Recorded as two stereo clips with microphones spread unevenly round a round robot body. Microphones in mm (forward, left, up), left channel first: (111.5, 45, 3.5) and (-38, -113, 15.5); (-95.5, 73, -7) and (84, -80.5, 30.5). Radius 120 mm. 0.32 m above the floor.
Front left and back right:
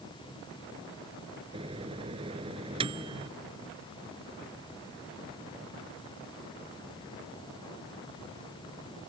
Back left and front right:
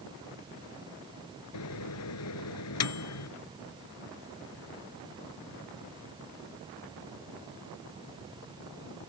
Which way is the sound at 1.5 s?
155° left.